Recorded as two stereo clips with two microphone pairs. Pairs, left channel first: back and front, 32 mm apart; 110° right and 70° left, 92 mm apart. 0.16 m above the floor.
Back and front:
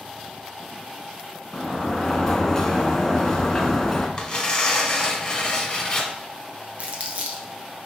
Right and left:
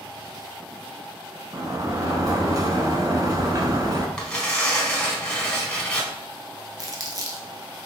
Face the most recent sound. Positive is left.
turn(degrees=30)